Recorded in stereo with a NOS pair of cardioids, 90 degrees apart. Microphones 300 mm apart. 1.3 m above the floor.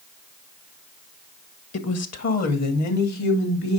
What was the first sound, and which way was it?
A woman speaking, 50° left.